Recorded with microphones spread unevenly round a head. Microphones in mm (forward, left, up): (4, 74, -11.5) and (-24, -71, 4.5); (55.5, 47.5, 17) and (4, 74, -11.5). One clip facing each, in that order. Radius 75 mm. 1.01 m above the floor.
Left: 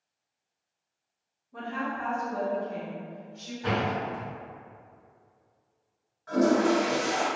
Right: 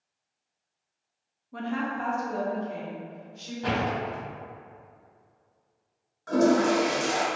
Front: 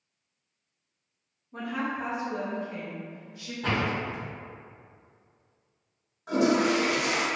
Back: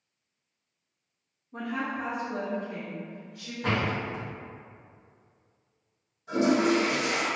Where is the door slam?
70° right, 1.1 m.